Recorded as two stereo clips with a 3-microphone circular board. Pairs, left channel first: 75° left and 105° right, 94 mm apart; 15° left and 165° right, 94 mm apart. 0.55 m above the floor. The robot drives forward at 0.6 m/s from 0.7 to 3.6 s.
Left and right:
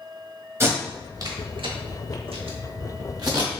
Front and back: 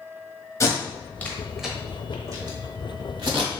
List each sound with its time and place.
0.6 s tape being pulled: 40° right, 0.9 m; by 3.5 s 145° right, 1.2 m